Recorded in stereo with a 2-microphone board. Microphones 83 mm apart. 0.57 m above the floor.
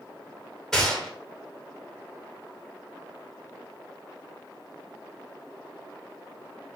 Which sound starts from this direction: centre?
A gunshot, at 0.7 s.